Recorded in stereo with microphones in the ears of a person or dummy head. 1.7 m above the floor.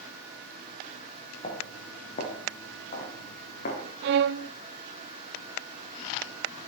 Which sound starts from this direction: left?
Footsteps, at 1.4 s.